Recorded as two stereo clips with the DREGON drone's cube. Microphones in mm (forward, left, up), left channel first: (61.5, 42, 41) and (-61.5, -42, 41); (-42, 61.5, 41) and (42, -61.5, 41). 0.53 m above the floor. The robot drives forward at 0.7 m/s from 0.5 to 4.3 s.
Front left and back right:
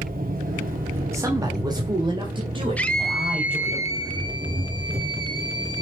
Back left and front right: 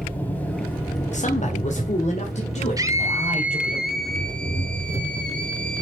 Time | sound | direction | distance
0.0 | an engine running | 160° right | 2.5 m
1.1 | a man speaking | 145° left | 1.5 m
2.8 | a scream | 35° right | 1.2 m